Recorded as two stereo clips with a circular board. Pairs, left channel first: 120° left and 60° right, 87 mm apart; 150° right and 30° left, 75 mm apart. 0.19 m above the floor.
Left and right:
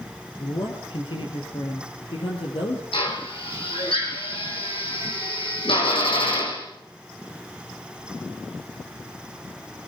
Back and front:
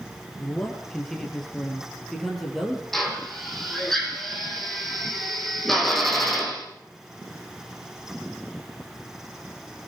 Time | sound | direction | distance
0.4 | a man speaking | 130° left | 4.5 m
2.9 | a drill | 125° left | 5.5 m